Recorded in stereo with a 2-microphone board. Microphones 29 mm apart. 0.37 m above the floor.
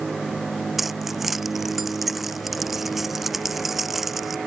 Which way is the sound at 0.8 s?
5° right (ahead or behind).